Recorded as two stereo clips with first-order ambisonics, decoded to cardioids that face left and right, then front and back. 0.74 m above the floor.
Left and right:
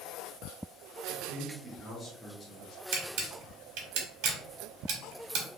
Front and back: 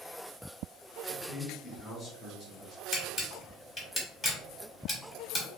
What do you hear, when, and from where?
1.1 s a man speaking: 105° right, 0.9 m; by 2.8 s 45° left, 0.9 m
2.9 s a camera shutter: 75° right, 1.1 m